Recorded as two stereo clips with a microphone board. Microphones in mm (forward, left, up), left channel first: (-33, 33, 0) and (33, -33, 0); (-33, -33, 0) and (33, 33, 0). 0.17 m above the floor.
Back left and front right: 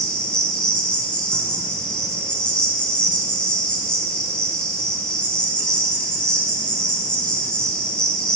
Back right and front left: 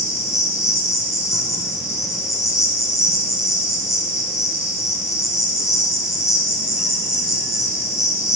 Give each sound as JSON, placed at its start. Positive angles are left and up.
{"t": 0.0, "sound": "an insect", "azimuth_deg": -150, "distance_m": 1.0}